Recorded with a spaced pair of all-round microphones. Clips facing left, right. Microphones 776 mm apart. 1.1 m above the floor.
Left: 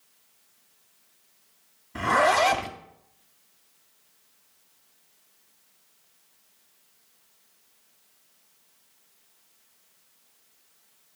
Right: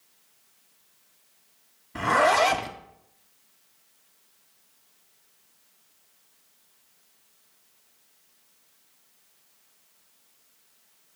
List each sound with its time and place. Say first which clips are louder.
1.9 s a zipper: right 1 dB; centre (ahead or behind), 0.6 m